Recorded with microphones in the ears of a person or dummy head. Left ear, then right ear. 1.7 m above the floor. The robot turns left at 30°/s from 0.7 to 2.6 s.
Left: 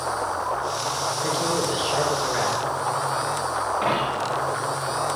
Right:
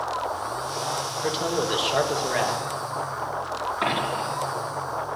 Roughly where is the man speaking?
Ahead.